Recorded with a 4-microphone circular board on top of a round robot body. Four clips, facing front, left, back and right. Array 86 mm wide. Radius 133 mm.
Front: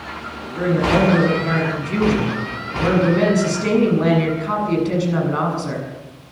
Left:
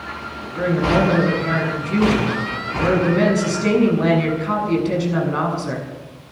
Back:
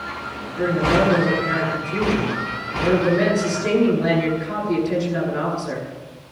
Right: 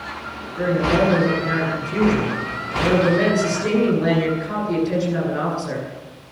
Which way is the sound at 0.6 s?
45° left.